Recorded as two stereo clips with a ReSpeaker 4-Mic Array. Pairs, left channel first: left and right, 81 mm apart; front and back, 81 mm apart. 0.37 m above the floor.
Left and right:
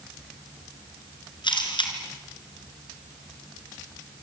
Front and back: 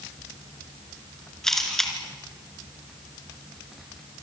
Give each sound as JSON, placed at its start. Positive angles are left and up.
{"t": 1.4, "sound": "a camera shutter", "azimuth_deg": 85, "distance_m": 4.0}